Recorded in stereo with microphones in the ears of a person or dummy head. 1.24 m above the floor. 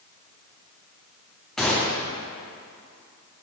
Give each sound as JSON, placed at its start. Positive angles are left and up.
{"t": 1.6, "sound": "a gunshot", "side_deg": 5, "distance_m": 0.8}